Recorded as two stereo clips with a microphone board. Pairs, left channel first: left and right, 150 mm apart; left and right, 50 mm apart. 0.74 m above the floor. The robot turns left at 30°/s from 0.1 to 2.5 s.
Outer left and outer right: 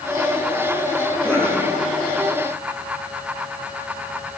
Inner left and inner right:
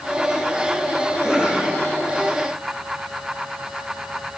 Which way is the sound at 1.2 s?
10° left (ahead or behind).